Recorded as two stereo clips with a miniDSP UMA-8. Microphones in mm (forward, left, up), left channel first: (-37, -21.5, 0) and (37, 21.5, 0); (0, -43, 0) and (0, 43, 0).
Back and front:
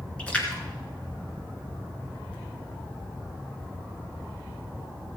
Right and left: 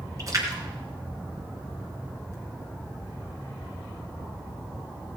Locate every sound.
0.2 s a splash: 135° left, 2.5 m